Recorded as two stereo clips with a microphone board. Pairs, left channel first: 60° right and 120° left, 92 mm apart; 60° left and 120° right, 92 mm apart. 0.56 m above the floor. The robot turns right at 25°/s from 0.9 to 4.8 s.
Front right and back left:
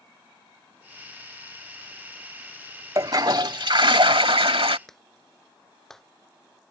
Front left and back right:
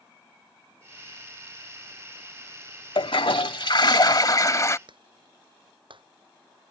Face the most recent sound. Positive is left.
turn(degrees=-145)